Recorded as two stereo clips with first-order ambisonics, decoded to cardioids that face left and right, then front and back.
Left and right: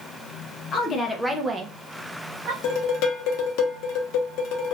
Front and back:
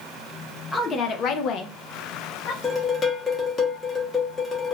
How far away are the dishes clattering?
About 0.8 m.